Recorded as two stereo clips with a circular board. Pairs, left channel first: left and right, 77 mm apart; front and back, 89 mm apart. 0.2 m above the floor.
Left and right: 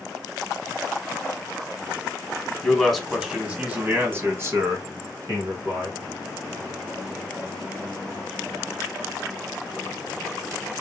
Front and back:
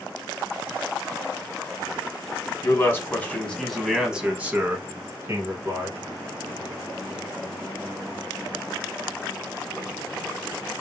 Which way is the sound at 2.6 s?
15° left.